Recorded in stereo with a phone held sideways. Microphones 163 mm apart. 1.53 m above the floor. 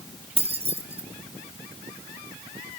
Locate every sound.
0.4 s keys jangling: 35° right (ahead or behind), 1.5 m